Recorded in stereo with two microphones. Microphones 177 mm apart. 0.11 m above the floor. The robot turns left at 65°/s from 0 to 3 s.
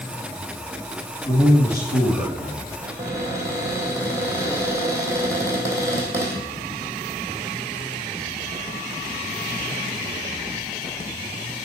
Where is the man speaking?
150° left, 4 m; by 2.7 s 55° left, 4 m.